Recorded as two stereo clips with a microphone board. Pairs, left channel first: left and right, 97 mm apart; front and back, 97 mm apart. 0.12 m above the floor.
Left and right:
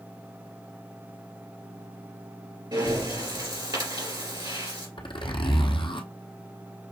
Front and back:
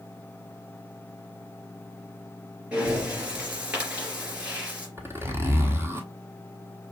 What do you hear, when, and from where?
2.7 s breathing: 105° right, 2.5 m
5.0 s a zipper: 115° left, 1.0 m